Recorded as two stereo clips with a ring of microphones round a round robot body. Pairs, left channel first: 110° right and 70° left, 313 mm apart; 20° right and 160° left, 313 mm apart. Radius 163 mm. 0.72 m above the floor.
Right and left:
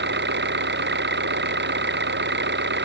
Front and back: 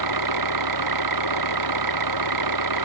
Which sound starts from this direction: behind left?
An engine running, at 0.0 s.